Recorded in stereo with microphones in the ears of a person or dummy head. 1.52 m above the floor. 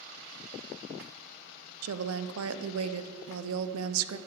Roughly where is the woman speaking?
Right.